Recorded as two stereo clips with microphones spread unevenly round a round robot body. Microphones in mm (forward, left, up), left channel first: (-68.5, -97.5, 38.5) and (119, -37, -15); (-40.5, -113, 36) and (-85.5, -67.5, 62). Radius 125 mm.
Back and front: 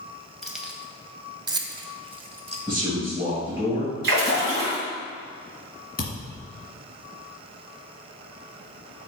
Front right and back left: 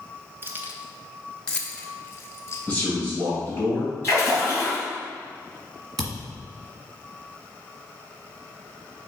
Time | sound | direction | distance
0.4 | keys jangling | 75° left | 0.7 m
2.7 | a man speaking | 95° left | 3 m
4.0 | a splash | 55° left | 2 m
6.0 | a thud | 140° left | 1.8 m